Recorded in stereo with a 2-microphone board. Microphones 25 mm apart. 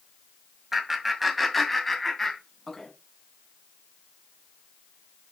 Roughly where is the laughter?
Centre.